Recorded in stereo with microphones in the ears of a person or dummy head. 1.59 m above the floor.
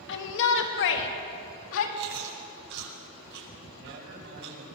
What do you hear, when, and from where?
0.1 s a shout: 65° left (ahead or behind), 2.5 m; by 1.9 s 80° left, 3 m
2.0 s chewing: 60° right (ahead or behind), 8.5 m
3.7 s a man speaking: 70° right (ahead or behind), 9.5 m